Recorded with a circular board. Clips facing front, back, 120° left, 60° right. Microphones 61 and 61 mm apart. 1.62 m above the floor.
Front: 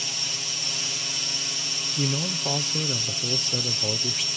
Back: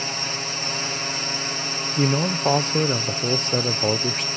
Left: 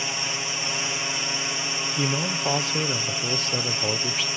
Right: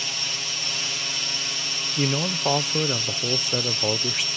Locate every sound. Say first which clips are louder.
0.0 s a drone: back 7 dB, left 3 dB; 175° left
2.0 s a man speaking: back 7 dB, right 2 dB; 140° right